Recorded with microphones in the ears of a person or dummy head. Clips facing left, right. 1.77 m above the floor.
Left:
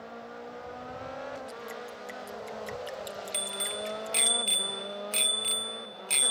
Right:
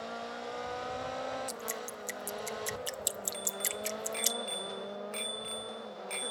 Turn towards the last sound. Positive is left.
turn(degrees=50)  # may be behind; listen again after turning